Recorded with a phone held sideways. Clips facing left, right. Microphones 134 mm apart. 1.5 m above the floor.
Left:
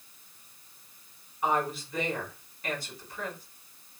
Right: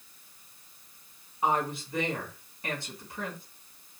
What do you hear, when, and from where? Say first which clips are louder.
1.4 s a woman speaking: even; 25° right (ahead or behind), 2.5 m